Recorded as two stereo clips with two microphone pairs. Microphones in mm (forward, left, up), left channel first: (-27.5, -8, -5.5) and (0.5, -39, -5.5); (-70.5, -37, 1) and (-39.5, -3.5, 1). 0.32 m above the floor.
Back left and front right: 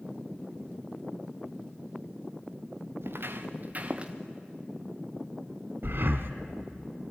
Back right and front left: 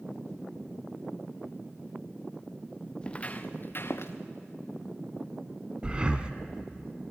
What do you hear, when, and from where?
3.0 s footsteps: 65° right, 1.8 m; by 4.1 s 115° right, 1.8 m
5.8 s breathing: 20° right, 1.3 m